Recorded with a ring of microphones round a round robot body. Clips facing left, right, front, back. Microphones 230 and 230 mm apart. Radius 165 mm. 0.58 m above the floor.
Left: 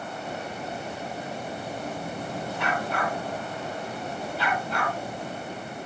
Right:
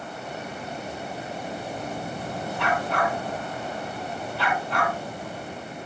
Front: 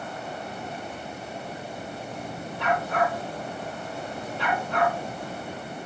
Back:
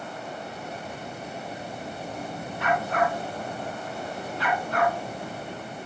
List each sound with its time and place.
2.6 s a dog barking: 70° right, 4.5 m